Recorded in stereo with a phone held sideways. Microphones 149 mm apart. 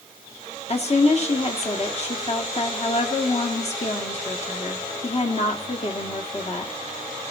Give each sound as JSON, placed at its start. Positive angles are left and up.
{"t": 0.7, "sound": "a woman speaking", "side_deg": 45, "distance_m": 1.8}